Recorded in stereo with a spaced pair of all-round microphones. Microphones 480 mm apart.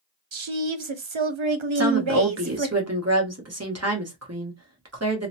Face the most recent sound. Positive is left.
turn(degrees=-30)  # may be behind; listen again after turning